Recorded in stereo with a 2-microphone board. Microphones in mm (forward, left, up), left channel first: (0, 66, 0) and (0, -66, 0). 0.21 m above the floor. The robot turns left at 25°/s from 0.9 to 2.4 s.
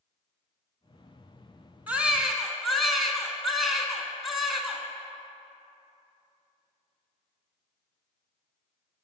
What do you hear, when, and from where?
1.9 s a baby crying: 15° right (ahead or behind), 1.0 m; by 4.8 s centre (ahead or behind), 1.0 m